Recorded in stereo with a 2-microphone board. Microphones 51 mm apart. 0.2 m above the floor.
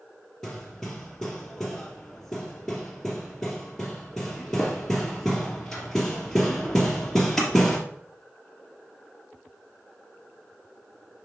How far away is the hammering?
About 2.0 m.